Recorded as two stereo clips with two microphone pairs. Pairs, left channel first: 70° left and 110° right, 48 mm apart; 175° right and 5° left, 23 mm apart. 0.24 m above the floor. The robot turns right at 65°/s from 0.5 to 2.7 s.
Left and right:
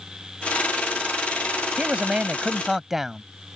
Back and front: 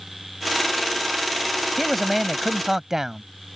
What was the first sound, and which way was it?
A man speaking, 95° right.